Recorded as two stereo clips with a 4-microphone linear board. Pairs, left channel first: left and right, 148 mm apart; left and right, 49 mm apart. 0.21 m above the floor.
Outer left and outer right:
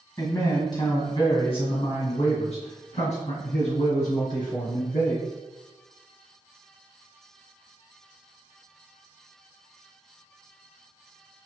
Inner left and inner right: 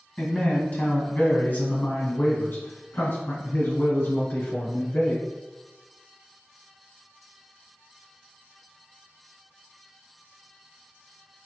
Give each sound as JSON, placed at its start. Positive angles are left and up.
{"t": 0.2, "sound": "a man speaking", "side_deg": 25, "distance_m": 1.7}